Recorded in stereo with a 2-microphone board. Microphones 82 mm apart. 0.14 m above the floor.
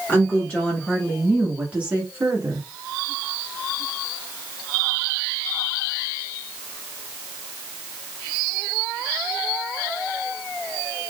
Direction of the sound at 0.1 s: 20° left (ahead or behind).